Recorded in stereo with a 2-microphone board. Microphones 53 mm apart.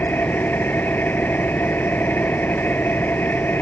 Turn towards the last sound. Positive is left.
turn(degrees=40)  # may be behind; listen again after turning